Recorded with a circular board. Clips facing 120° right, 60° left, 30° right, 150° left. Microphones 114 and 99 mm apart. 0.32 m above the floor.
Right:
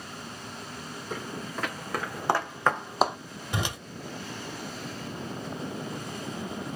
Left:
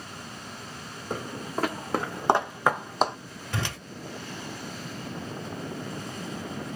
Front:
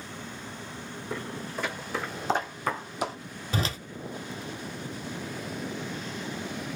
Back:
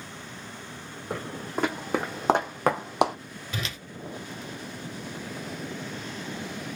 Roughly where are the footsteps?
Left.